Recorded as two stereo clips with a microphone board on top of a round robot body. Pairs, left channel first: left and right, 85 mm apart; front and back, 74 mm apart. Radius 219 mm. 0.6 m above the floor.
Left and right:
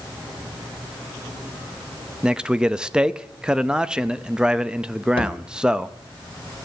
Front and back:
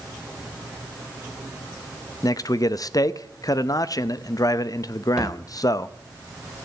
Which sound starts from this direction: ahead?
A man speaking, at 2.2 s.